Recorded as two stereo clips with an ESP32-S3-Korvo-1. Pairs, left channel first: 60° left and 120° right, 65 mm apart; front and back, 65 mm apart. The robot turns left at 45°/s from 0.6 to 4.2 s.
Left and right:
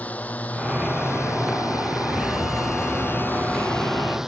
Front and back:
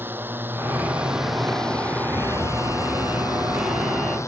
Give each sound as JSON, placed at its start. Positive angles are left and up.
{"t": 0.0, "sound": "a drone", "azimuth_deg": 125}
{"t": 2.2, "sound": "a fire alarm", "azimuth_deg": 165}